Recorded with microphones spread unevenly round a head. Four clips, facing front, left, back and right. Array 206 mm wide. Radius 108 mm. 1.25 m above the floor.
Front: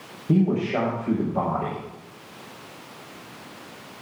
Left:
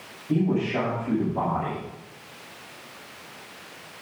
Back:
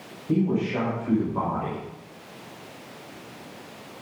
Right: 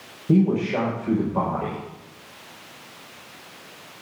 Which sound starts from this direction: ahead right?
A man speaking, at 0.3 s.